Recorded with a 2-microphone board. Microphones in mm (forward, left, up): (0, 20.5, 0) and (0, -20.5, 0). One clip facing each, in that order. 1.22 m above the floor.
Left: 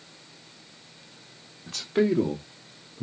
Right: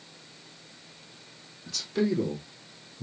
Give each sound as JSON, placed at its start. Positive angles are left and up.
{"t": 1.7, "sound": "a man speaking", "side_deg": 35, "distance_m": 1.3}